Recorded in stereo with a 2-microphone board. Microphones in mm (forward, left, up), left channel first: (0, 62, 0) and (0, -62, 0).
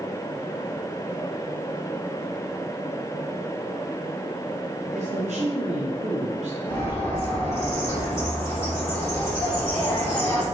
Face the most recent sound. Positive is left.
turn(degrees=30)  # may be behind; listen again after turning